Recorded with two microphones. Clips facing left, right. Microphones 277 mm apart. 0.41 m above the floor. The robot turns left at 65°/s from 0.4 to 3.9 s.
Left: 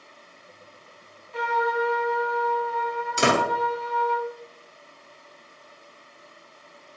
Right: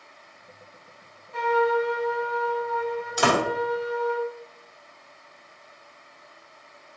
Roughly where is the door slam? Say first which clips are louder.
Left 1 dB; left.